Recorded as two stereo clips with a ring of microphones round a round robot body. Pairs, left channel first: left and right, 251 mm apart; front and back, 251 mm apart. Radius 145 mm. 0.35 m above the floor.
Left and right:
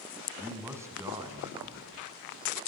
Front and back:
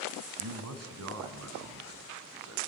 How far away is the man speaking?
About 2.5 m.